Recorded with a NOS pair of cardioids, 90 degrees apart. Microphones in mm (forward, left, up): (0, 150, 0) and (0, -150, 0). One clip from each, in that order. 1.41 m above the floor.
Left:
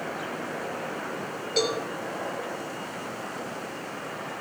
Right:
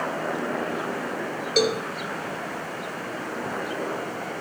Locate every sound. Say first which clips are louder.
1.6 s a cowbell: right 4 dB; 35° right, 3.5 m